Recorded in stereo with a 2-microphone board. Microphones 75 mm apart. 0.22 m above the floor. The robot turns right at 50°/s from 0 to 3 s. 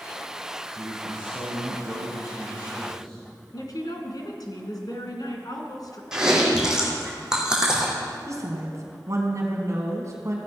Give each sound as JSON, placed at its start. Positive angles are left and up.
{"t": 0.8, "sound": "a man speaking", "azimuth_deg": -105, "distance_m": 4.5}
{"t": 3.5, "sound": "a woman speaking", "side_deg": 60, "distance_m": 1.9}
{"t": 6.1, "sound": "chewing", "side_deg": -10, "distance_m": 3.0}
{"t": 8.3, "sound": "a woman speaking", "side_deg": -45, "distance_m": 2.0}